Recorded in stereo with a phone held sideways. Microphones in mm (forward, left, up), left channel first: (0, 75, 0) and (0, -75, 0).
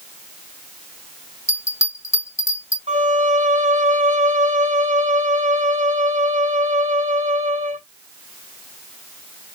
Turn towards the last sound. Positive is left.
turn(degrees=-55)  # may be behind; listen again after turning